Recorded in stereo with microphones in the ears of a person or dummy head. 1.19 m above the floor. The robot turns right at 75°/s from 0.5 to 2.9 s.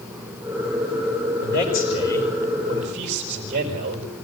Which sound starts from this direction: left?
A man speaking, at 1.4 s.